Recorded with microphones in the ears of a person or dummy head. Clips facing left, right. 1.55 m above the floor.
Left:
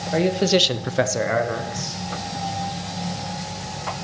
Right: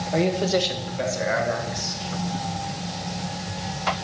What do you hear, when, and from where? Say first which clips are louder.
0.1 s a man speaking: left 3 dB; 10° left (ahead or behind), 1.1 m; by 2.0 s 35° left (ahead or behind), 1.9 m